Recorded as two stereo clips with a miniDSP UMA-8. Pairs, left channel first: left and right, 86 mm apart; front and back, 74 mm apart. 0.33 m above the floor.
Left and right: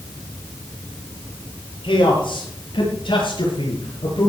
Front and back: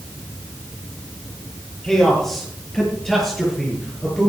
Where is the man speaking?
85° left, 9 m.